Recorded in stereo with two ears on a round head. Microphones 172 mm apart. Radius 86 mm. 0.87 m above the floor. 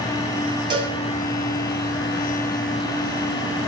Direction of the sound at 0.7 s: 25° right (ahead or behind).